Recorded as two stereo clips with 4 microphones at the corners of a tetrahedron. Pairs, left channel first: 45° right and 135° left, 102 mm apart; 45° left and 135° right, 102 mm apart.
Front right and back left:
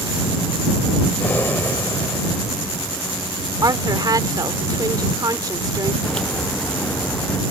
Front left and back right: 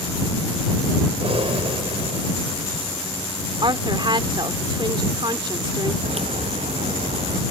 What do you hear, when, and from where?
1.2 s breathing: 115° right
3.6 s a woman speaking: 175° right
6.0 s a crack: 125° right